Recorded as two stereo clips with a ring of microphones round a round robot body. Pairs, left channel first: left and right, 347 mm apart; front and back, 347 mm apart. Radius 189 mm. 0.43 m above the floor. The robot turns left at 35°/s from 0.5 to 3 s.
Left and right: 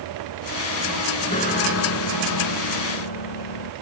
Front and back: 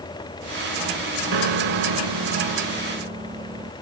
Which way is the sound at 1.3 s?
165° left.